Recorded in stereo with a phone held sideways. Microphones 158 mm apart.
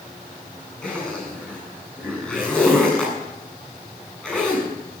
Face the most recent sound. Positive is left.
turn(degrees=5)  # may be behind; listen again after turning